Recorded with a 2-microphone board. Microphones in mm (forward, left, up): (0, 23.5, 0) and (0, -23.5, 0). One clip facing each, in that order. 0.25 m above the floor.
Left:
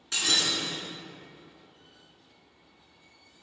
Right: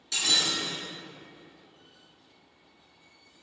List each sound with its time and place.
0.1 s breaking glass: 35° left (ahead or behind), 1.7 m